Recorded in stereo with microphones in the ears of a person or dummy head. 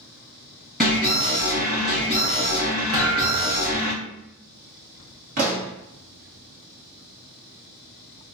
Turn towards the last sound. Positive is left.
turn(degrees=-45)  # may be behind; listen again after turning